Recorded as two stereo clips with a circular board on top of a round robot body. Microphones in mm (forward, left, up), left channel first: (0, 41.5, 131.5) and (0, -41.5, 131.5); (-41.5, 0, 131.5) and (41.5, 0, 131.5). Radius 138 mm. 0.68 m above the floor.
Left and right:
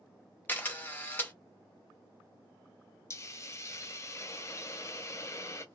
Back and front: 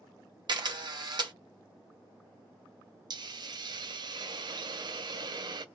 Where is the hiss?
35° left, 0.7 m.